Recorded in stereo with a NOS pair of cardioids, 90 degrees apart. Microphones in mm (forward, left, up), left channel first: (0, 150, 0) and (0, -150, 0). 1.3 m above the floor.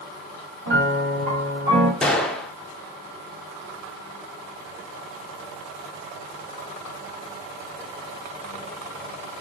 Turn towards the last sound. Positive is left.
turn(degrees=0)